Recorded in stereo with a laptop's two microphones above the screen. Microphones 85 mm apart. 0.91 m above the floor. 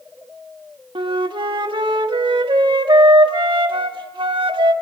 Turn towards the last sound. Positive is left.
turn(degrees=-70)  # may be behind; listen again after turning